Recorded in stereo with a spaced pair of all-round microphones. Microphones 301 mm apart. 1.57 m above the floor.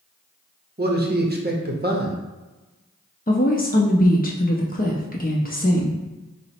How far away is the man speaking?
About 0.7 m.